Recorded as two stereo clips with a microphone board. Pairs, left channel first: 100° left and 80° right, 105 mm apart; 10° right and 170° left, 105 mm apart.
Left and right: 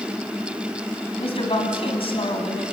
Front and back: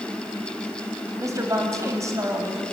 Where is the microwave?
I don't hear a microwave.